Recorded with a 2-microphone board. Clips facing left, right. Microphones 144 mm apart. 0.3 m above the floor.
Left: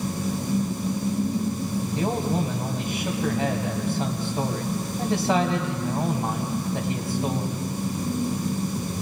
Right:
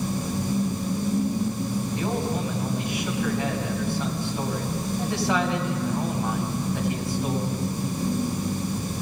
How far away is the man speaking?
About 2 m.